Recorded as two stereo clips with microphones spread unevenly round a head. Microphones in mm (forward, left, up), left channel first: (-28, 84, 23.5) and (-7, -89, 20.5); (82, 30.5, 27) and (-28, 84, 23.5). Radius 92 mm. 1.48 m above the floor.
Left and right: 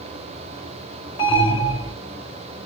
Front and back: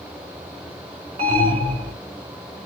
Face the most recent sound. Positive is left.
turn(degrees=160)